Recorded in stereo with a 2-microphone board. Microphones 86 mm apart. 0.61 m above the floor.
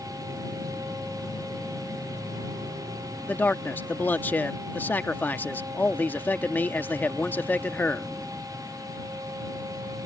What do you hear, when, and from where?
3.3 s a man speaking: 20° left (ahead or behind)